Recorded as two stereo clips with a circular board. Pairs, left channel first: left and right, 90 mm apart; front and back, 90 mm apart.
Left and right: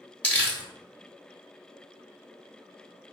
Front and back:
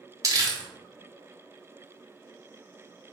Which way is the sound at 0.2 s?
155° left.